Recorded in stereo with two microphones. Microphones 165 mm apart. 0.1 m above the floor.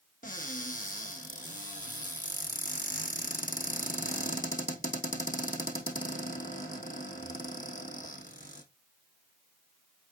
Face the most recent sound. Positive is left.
turn(degrees=50)  # may be behind; listen again after turning